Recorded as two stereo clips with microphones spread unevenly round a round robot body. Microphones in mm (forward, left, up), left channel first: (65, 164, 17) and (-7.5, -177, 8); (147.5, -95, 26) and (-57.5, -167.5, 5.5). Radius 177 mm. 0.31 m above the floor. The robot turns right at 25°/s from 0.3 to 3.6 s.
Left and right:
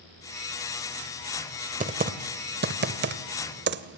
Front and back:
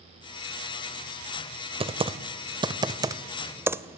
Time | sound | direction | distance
1.8 | typing on a keyboard | 145° right | 0.9 m